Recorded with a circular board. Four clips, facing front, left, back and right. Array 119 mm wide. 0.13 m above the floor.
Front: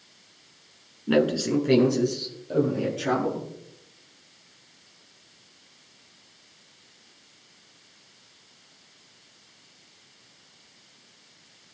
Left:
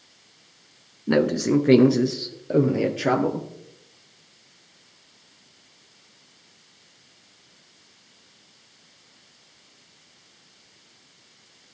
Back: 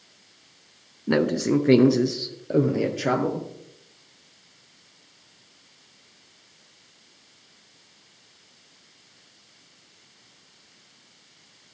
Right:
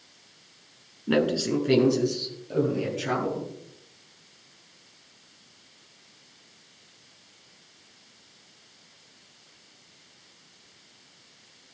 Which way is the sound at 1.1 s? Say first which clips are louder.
Left 4 dB, back 1 dB; 140° left.